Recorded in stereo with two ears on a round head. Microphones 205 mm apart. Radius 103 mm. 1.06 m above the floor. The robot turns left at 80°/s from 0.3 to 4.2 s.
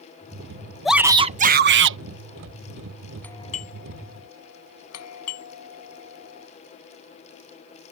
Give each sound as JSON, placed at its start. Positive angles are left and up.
{"t": 0.8, "sound": "a shout", "azimuth_deg": 0}
{"t": 3.2, "sound": "a doorbell", "side_deg": 5}